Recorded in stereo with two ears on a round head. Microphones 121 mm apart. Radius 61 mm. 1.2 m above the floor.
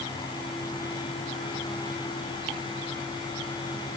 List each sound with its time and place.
Only background noise.